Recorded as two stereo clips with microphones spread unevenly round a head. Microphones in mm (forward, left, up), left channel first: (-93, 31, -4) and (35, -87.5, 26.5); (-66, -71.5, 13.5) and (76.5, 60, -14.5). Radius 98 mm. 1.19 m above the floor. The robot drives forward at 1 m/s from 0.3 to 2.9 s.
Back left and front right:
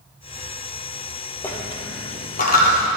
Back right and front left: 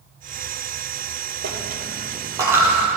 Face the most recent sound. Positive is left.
turn(degrees=140)